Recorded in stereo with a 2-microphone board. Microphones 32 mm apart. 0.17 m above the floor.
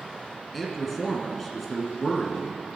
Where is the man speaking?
5° left (ahead or behind), 1.7 m.